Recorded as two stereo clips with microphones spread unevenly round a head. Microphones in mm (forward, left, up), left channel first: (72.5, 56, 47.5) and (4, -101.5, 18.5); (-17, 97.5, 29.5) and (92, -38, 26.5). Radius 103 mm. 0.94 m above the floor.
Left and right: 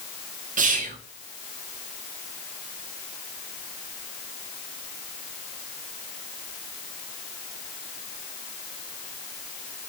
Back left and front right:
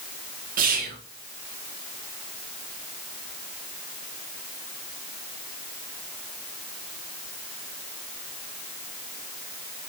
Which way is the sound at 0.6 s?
85° right.